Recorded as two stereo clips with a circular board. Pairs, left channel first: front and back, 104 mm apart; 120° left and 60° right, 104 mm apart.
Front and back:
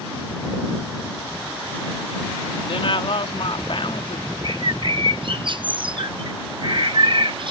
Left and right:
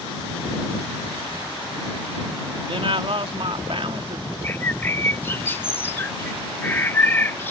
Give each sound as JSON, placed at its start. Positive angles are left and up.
{"t": 2.6, "sound": "a woman speaking", "azimuth_deg": -30}
{"t": 4.4, "sound": "a bird", "azimuth_deg": -175}